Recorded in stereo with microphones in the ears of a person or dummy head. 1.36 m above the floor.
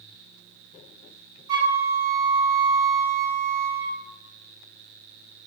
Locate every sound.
1.5 s a flute: 25° right (ahead or behind), 2.5 m